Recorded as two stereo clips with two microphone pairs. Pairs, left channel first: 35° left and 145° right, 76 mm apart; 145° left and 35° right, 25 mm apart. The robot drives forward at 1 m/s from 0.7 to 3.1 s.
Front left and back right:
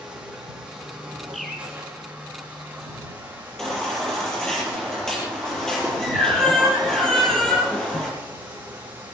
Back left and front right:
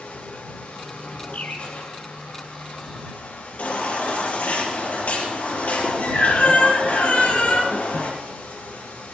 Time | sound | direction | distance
0.0 | running water | 135° left | 6.5 m
1.3 | a bird | 120° left | 3.5 m
3.6 | a baby crying | 120° left | 6.5 m